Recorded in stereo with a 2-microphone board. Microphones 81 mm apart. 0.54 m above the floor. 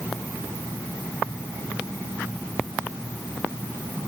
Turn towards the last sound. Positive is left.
No sound to turn to.